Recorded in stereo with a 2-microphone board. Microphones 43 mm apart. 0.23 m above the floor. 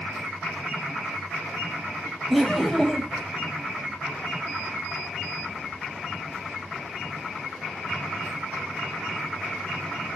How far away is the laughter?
About 0.9 m.